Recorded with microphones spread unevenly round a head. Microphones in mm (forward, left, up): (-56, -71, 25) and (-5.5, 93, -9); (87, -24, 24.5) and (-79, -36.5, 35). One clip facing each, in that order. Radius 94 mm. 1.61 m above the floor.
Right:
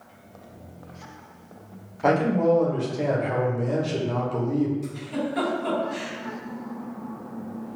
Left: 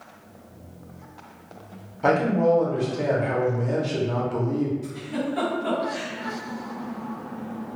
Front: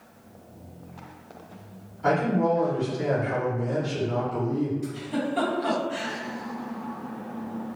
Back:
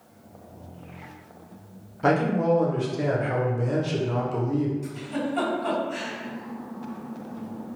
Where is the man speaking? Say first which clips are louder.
Even, back 1 dB; 170° left, 0.7 m.